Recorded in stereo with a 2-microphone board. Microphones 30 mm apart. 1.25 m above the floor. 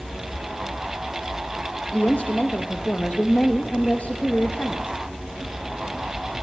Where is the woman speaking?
55° left (ahead or behind), 1.4 m.